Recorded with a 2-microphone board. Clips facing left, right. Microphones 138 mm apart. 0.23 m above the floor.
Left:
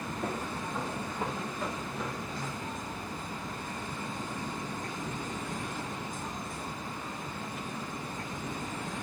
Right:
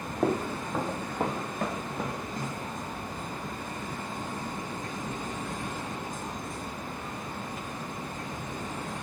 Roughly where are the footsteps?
Right.